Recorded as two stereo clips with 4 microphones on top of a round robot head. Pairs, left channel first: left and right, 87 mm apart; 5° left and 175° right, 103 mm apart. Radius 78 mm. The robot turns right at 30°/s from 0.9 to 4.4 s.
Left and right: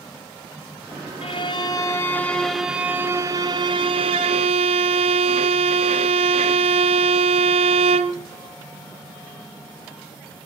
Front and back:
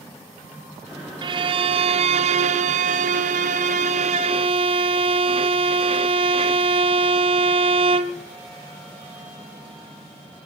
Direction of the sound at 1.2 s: 140° left.